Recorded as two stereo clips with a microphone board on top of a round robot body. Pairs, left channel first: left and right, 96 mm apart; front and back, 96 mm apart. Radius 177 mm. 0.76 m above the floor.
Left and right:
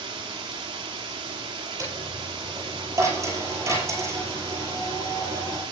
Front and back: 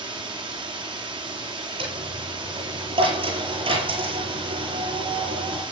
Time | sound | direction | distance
0.0 | running water | 135° right | 1.7 m
1.8 | a dropped coin | 150° right | 9.5 m